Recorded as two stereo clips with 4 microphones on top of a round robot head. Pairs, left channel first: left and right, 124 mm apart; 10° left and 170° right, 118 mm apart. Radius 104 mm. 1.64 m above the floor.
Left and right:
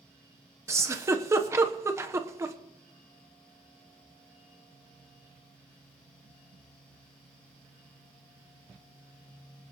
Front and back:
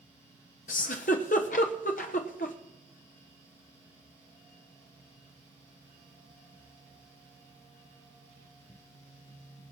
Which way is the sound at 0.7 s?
25° right.